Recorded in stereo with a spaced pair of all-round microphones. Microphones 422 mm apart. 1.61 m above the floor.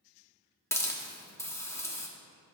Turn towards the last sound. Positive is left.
turn(degrees=5)  # may be behind; listen again after turning